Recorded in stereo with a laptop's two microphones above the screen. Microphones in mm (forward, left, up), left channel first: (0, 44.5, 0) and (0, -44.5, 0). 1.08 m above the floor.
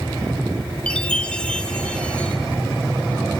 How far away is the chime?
About 0.8 m.